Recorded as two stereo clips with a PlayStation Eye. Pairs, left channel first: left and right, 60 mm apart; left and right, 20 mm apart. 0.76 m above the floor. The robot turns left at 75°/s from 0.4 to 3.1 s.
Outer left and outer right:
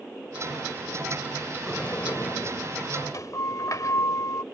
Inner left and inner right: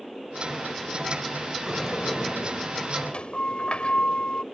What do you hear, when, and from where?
1.7 s a sliding door: 175° left; by 4.4 s 65° left